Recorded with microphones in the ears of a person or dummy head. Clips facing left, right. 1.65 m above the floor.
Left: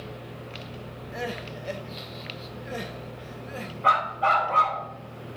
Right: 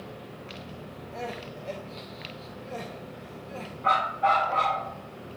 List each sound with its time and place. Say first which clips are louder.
1.1 s crying: left 3 dB; 15° left (ahead or behind), 1.1 m
3.8 s a dog barking: even; 60° left (ahead or behind), 2.5 m